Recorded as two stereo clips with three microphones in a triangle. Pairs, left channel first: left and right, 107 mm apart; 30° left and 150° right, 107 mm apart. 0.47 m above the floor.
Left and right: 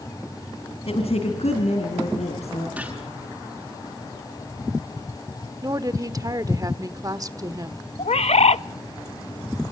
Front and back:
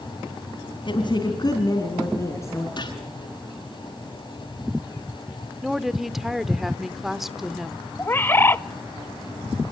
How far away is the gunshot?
About 6 m.